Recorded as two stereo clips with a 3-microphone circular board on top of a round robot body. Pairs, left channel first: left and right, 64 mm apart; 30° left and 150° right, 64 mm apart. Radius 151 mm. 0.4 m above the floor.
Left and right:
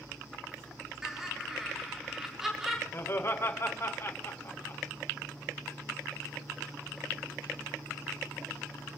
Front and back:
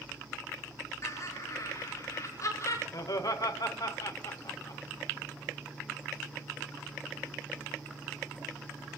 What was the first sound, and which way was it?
Laughter, 5° right.